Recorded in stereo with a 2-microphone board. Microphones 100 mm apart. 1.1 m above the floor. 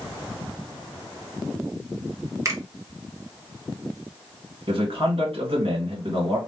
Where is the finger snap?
30° right (ahead or behind), 0.9 m.